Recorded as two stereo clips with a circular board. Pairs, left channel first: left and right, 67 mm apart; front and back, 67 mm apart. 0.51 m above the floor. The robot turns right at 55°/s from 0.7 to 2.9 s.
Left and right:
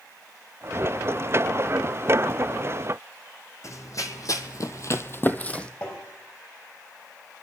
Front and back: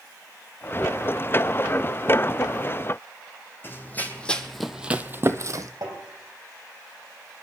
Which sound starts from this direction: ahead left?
Running footsteps, at 3.6 s.